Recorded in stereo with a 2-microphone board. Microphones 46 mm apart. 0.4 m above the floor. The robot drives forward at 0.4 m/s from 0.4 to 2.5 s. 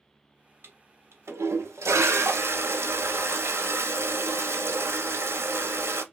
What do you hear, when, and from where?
0.6 s a toilet flushing: 50° right (ahead or behind), 0.7 m; by 6.0 s 60° right (ahead or behind), 0.6 m